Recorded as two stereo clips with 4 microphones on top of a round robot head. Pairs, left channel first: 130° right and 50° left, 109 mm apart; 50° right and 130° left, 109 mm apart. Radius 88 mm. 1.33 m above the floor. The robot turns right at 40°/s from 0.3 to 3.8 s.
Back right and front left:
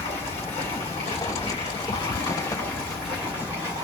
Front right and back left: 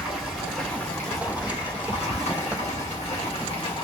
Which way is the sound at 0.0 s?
150° right.